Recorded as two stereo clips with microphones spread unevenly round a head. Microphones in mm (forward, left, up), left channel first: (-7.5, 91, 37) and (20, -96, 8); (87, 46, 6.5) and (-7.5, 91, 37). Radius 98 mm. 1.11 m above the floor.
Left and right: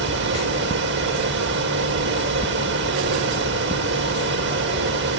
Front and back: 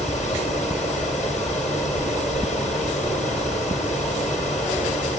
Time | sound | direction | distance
0.0 | a fan | 115° right | 4 m